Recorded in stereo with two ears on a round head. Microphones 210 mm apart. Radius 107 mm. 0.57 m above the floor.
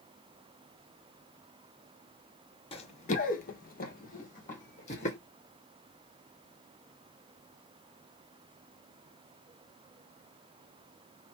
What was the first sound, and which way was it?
Running footsteps, 25° left (ahead or behind).